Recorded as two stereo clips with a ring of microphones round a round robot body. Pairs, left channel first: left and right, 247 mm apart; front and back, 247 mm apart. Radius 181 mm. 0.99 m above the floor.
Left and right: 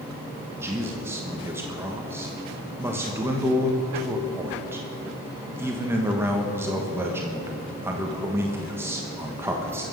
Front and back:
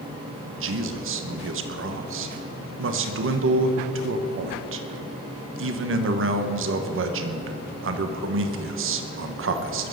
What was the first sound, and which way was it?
A man speaking, 170° right.